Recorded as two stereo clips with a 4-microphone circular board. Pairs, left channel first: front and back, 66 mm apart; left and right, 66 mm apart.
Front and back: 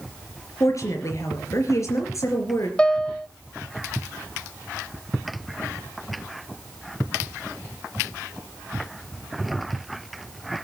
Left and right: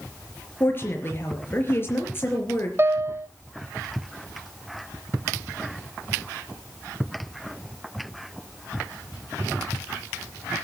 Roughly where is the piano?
Ahead right.